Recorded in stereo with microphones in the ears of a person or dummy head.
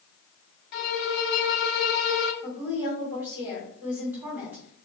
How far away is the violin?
About 1.0 m.